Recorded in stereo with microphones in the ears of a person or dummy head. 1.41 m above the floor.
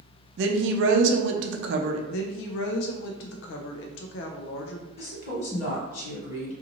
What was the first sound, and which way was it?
A woman speaking, 70° right (ahead or behind).